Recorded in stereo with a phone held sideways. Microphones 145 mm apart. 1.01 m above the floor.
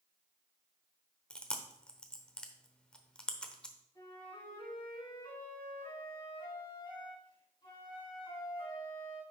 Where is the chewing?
5° left (ahead or behind), 0.9 m.